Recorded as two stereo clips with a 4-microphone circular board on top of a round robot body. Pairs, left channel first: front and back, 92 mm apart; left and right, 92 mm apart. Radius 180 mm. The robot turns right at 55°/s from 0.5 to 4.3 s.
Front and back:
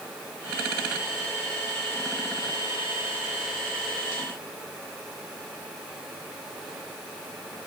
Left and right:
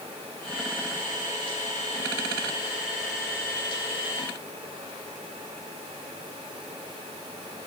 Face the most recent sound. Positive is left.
No sound to turn to.